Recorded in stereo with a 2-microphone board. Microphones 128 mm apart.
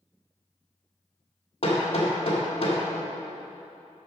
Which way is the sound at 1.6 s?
50° left (ahead or behind).